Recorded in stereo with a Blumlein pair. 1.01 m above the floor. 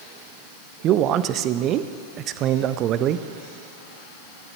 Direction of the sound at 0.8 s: 35° right.